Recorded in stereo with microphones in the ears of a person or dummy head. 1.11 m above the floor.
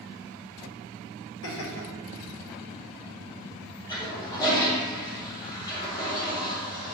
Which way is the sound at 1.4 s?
75° left (ahead or behind).